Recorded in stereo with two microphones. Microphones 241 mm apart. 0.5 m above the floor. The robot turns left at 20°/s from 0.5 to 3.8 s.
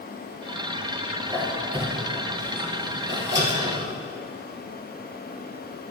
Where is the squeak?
10° right (ahead or behind), 2 m; by 3.9 s 60° right (ahead or behind), 2 m.